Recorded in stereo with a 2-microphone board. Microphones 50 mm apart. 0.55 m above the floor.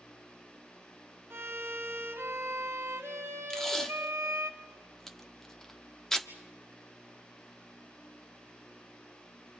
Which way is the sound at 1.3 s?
55° right (ahead or behind).